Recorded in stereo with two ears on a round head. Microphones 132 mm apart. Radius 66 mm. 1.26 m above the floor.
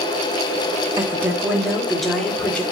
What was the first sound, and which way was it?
A woman speaking, 20° right (ahead or behind).